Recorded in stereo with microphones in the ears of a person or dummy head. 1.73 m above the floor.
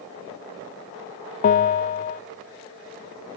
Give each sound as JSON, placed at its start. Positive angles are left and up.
{"t": 1.4, "sound": "a bell", "side_deg": 40, "distance_m": 0.6}